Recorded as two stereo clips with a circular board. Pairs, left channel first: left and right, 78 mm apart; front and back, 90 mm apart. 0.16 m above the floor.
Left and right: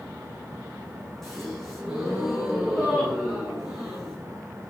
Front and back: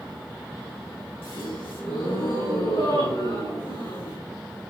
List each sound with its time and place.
1.2 s a gasp: 5° left, 6.5 m